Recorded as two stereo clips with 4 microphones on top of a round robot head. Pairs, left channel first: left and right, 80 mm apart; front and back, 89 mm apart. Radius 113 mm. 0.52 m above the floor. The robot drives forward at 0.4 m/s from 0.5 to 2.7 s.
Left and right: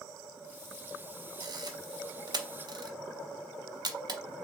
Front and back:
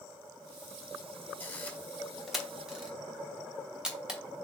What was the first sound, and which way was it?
A camera shutter, 65° right.